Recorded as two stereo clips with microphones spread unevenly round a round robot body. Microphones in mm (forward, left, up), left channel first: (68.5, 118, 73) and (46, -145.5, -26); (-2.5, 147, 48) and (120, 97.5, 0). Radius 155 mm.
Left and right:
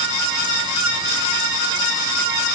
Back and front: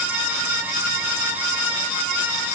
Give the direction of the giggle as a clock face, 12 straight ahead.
No giggle in this recording.